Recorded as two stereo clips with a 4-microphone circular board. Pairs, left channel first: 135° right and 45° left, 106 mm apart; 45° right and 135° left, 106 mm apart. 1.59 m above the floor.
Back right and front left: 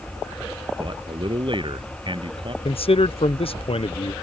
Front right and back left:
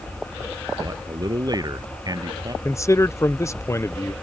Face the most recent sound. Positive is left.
turn(degrees=-105)